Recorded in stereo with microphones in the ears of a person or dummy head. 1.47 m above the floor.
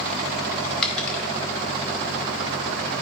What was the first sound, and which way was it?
A dropped coin, centre (ahead or behind).